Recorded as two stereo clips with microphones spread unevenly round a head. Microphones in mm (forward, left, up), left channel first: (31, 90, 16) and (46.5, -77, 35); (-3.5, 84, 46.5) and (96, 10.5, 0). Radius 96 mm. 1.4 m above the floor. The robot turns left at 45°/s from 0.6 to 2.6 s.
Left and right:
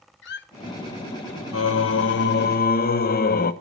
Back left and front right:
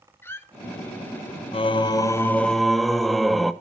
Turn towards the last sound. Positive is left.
turn(degrees=60)